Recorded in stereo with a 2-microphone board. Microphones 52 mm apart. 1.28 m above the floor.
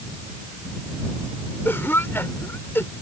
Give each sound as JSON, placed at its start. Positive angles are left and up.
{"t": 1.6, "sound": "a cough", "side_deg": 50}